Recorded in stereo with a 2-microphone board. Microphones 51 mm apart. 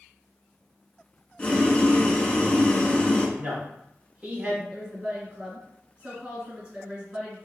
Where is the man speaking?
20° right (ahead or behind), 1.8 m.